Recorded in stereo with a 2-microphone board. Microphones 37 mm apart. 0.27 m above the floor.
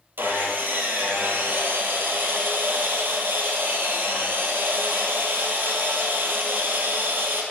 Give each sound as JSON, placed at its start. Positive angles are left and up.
{"t": 0.2, "sound": "sawing", "side_deg": -80, "distance_m": 1.2}